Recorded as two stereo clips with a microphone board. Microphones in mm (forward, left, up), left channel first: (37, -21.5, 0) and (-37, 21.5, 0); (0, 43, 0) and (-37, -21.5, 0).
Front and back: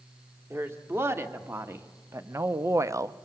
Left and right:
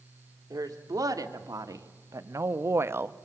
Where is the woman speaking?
150° right, 2 m; by 3.2 s 175° right, 0.6 m.